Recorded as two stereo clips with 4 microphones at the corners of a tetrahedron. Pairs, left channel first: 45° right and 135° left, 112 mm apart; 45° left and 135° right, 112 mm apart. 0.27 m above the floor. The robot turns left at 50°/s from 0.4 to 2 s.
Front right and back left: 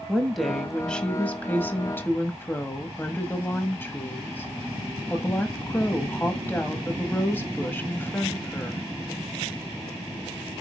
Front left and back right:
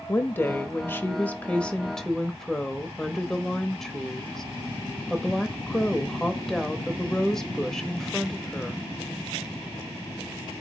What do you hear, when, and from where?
0.1 s a woman speaking: 45° left, 0.9 m; by 8.8 s 35° right, 0.9 m